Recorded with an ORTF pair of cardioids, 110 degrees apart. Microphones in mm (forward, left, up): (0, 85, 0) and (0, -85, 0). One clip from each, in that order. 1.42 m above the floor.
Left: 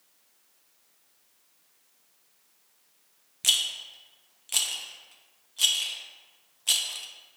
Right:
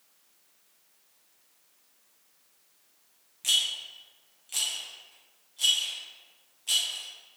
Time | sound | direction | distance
3.4 | a rattle | 40° left | 0.5 m